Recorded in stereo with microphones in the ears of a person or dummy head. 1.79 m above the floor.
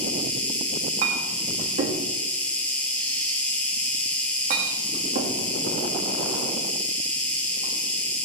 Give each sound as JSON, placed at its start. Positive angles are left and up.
{"t": 0.0, "sound": "an insect", "side_deg": 5, "distance_m": 3.0}
{"t": 1.0, "sound": "a clink", "side_deg": -45, "distance_m": 1.9}